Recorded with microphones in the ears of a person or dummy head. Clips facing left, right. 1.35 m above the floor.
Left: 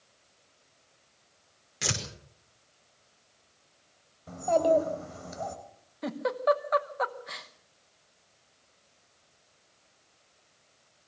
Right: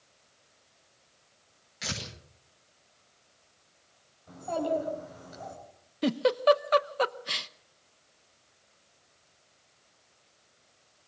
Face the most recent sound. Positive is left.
turn(degrees=-40)  # may be behind; listen again after turning